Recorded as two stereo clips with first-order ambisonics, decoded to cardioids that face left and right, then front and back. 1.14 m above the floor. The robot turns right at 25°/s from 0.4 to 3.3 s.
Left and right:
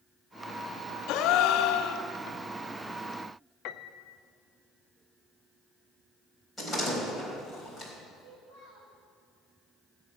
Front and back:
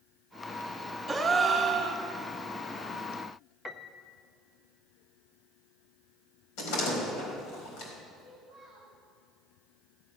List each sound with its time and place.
1.1 s a gasp: 90° left, 1.1 m; by 2.1 s 115° left, 1.1 m
3.6 s a piano: 80° left, 0.5 m
6.6 s a door slam: 5° left, 4 m
8.2 s a child speaking: 60° right, 3.5 m